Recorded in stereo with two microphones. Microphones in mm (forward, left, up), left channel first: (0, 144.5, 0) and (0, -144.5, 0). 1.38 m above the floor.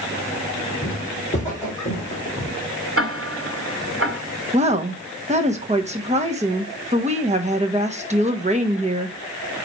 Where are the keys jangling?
No keys jangling in this recording.